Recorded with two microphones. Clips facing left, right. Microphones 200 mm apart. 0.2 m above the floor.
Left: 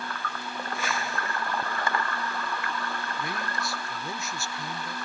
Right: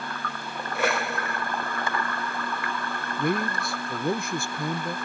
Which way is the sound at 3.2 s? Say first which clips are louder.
Right 8 dB; 55° right (ahead or behind).